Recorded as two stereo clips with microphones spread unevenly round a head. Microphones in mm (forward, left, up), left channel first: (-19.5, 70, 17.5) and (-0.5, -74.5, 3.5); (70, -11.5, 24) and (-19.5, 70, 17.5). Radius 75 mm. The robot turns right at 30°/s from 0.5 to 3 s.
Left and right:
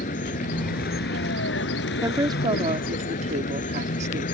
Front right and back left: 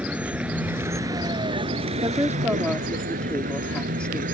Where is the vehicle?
55° left; by 4.3 s 130° left.